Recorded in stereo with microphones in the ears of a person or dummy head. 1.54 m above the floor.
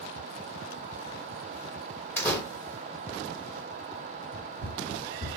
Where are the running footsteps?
5° right (ahead or behind), 2.5 m; by 5.4 s 20° left (ahead or behind), 2.5 m.